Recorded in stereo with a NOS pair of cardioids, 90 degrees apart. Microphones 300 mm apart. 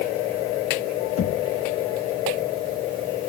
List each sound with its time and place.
1.2 s knocking: 55° left, 2.5 m